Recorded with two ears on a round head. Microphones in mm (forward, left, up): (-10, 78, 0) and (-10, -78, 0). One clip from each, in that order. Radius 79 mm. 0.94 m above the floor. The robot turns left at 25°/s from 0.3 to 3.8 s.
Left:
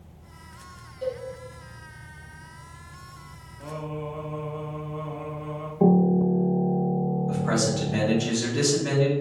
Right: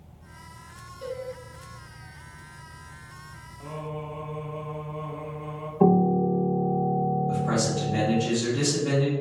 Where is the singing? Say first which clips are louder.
Left 2 dB; 5° left (ahead or behind), 0.7 m.